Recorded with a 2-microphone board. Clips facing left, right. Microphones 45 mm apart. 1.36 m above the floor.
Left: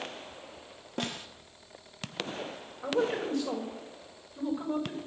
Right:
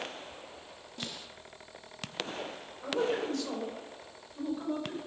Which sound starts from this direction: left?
A snare drum, at 1.0 s.